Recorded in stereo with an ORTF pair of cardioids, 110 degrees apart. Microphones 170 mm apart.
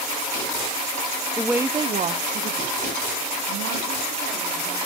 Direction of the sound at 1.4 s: 5° left.